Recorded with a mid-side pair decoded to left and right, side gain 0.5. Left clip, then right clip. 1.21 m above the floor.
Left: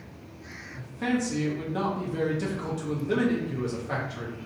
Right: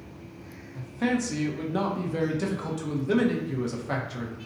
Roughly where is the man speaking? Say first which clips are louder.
Right 1 dB; ahead right.